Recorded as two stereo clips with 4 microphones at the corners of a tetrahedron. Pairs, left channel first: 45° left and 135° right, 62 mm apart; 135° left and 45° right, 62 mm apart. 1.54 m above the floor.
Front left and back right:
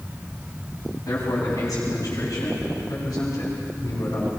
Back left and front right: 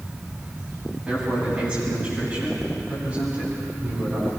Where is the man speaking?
25° left, 9 m; by 4.3 s 15° left, 10.5 m.